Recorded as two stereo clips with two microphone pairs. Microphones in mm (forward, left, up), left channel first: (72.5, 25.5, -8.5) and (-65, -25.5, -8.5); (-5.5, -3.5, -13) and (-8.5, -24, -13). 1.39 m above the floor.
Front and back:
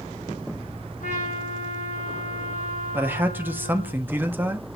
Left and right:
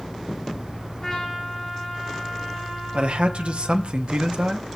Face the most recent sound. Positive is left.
turn(degrees=-85)